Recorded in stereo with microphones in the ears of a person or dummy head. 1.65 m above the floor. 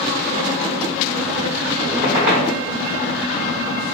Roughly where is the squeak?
Right.